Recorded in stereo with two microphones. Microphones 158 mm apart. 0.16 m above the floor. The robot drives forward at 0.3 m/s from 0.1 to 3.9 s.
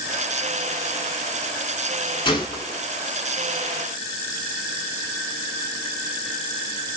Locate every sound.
2.2 s a gunshot: 30° left (ahead or behind), 1.2 m